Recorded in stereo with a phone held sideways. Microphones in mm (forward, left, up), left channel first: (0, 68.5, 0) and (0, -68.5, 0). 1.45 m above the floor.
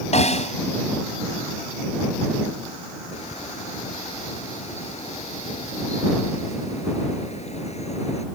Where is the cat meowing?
No cat meowing in this recording.